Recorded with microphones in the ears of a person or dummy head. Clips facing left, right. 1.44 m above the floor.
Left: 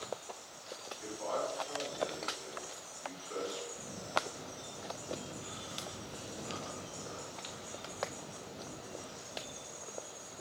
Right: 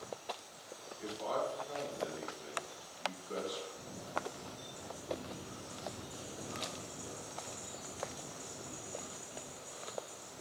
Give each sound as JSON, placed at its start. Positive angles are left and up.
{"t": 1.0, "sound": "a man speaking", "side_deg": -45, "distance_m": 1.4}
{"t": 3.7, "sound": "a camera shutter", "side_deg": 25, "distance_m": 1.0}